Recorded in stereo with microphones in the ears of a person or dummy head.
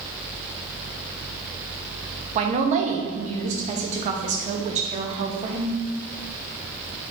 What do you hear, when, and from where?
2.4 s a woman speaking: 40° right (ahead or behind), 0.6 m